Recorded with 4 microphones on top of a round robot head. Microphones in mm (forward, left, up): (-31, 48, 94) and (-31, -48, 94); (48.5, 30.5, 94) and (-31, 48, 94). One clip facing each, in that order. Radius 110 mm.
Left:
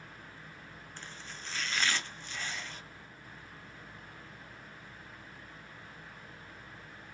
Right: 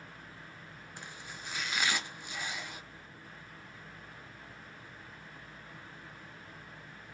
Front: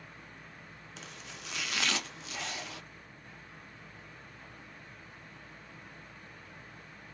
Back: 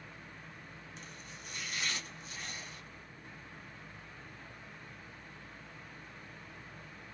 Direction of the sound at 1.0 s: 10° right.